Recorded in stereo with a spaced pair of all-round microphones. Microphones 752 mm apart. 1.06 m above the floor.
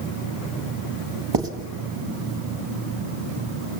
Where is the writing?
35° right (ahead or behind), 1.5 m.